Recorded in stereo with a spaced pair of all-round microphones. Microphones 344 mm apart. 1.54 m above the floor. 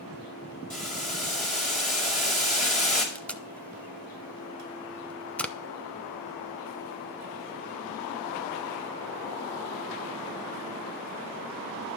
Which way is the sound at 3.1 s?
5° left (ahead or behind).